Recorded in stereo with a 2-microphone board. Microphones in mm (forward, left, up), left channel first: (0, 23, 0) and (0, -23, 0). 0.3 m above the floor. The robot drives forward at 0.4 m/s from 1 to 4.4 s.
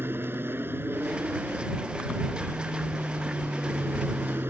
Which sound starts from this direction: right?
An aircraft, at 0.0 s.